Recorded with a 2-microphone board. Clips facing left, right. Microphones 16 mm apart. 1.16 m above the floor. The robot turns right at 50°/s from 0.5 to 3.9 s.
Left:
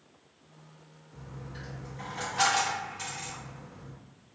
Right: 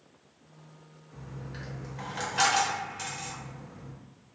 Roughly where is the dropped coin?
Right.